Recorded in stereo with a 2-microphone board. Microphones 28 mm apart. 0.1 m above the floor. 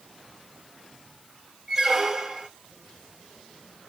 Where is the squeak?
15° right (ahead or behind), 0.6 m.